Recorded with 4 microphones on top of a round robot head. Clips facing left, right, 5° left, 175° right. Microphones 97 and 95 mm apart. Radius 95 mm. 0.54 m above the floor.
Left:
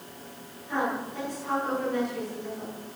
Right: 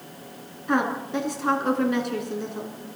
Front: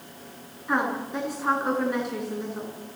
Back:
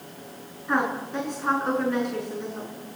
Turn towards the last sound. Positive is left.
turn(degrees=-80)